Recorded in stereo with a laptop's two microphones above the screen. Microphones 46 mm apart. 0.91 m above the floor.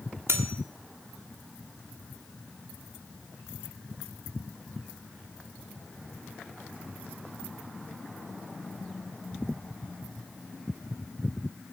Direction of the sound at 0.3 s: 70° right (ahead or behind).